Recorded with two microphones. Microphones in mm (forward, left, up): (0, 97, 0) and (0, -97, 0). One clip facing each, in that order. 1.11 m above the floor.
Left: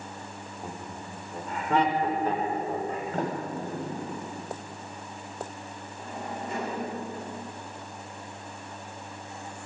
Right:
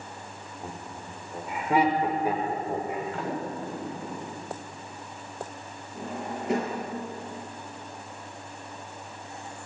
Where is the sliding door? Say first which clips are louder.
Left 1 dB; 45° left (ahead or behind), 6 m.